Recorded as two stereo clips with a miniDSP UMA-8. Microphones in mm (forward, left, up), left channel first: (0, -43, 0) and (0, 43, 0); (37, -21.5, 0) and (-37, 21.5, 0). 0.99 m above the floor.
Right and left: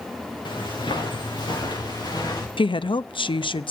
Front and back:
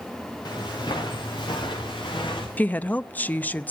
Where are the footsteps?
65° right, 6.5 m; by 2.5 s 50° right, 6.5 m.